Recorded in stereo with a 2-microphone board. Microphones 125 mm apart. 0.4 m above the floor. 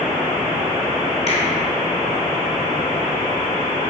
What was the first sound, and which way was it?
A finger snap, 55° left (ahead or behind).